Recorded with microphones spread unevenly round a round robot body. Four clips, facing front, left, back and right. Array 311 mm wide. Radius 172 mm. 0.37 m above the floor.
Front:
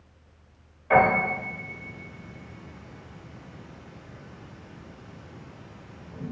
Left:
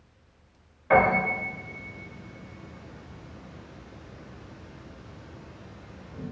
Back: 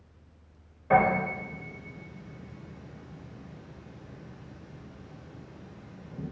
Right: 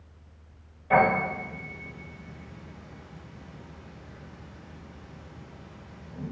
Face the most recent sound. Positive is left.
turn(degrees=160)